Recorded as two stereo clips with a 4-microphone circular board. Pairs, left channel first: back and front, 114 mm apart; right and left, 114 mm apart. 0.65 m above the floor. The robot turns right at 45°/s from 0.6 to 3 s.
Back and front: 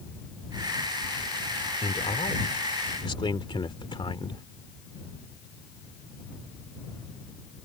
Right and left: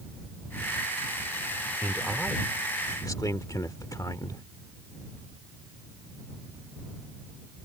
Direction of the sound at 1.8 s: 160° left.